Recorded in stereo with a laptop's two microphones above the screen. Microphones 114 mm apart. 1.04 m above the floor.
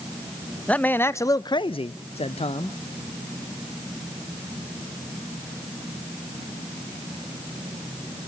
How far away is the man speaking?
About 0.8 m.